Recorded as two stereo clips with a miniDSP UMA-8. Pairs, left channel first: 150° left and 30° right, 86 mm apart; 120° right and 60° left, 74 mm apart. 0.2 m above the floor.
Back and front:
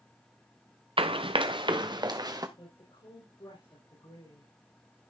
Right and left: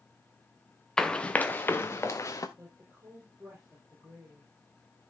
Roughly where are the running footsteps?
Ahead right.